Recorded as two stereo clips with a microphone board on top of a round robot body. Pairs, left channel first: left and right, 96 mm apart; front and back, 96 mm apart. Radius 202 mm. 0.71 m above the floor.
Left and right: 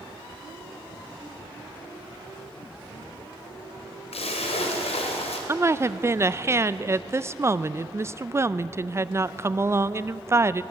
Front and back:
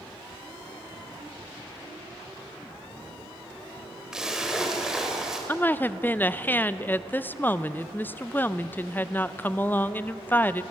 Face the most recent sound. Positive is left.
turn(degrees=-55)